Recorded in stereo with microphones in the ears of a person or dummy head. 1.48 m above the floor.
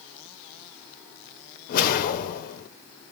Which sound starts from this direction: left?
A whoosh, at 1.7 s.